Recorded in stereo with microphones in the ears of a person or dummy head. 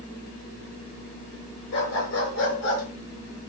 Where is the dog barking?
65° left (ahead or behind), 6 m; by 2.8 s 70° left (ahead or behind), 5.5 m.